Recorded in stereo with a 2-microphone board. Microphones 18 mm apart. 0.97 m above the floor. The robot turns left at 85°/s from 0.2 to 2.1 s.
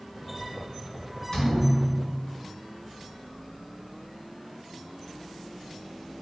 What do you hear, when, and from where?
1.3 s a thud: 150° left, 1.9 m; by 2.3 s 85° left, 1.9 m